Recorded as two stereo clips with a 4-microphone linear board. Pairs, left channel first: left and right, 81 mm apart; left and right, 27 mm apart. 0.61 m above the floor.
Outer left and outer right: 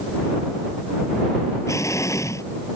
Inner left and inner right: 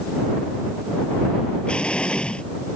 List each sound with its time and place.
1.7 s an explosion: 40° left (ahead or behind)